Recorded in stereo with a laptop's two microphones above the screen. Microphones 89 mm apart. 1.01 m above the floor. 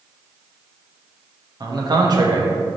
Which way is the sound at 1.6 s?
50° right (ahead or behind).